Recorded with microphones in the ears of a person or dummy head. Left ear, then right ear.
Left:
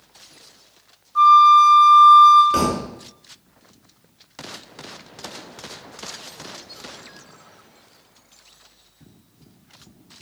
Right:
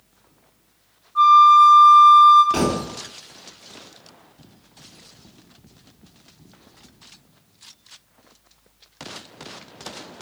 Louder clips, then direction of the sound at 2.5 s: Left 2 dB; 10° right (ahead or behind).